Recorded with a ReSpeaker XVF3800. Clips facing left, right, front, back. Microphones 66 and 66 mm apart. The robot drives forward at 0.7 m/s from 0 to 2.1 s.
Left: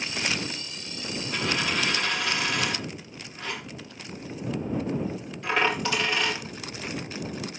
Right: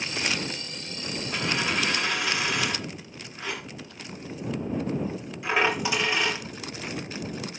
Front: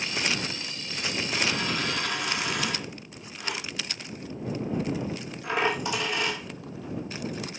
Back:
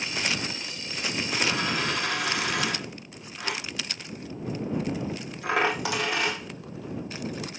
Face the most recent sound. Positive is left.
turn(degrees=-170)